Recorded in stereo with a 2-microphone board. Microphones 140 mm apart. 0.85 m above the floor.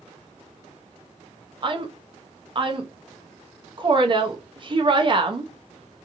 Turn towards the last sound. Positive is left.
turn(degrees=-40)  # may be behind; listen again after turning